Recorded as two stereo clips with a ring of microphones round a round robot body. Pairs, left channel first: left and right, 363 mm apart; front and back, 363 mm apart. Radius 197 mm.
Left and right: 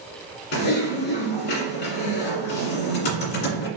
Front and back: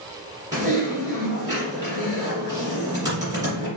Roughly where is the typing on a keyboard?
Left.